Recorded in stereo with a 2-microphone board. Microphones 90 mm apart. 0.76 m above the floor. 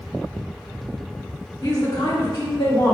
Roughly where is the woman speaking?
Left.